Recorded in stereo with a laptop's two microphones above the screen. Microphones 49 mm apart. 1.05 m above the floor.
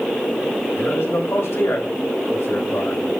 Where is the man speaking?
65° left (ahead or behind), 6 m; by 3.0 s 75° left (ahead or behind), 5 m.